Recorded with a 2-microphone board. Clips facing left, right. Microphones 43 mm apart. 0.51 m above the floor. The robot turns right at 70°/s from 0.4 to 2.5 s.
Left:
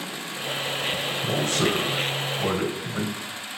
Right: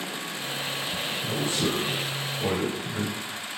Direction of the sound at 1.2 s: 70° left.